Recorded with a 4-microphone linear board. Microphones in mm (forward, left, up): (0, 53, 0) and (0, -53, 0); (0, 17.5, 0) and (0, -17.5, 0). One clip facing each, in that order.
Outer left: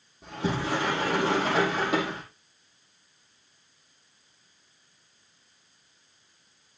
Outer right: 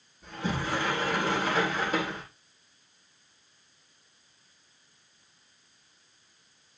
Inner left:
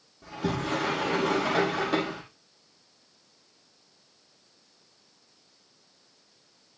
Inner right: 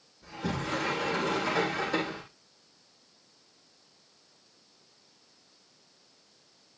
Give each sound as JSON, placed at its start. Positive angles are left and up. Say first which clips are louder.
{"t": 0.2, "sound": "a sliding door", "louder": "outer left 3 dB, inner left 4 dB", "side_deg": 80, "distance_m": 8.0}